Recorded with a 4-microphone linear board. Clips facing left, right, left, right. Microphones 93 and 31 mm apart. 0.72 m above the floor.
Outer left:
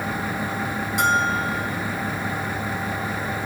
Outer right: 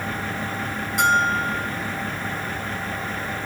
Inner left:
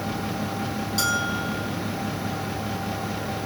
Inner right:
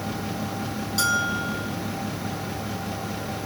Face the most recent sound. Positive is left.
turn(degrees=0)  # may be behind; listen again after turning